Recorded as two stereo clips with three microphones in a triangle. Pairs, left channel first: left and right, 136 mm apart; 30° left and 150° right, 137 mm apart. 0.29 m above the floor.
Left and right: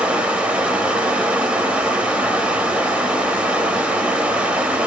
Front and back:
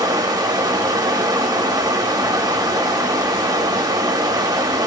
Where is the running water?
165° right, 0.9 m.